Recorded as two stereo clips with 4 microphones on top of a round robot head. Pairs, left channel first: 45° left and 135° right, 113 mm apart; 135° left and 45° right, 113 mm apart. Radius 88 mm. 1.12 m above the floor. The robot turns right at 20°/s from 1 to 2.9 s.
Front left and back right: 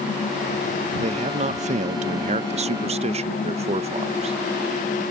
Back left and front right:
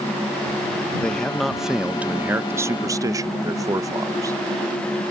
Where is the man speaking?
145° right; by 4.4 s 105° right.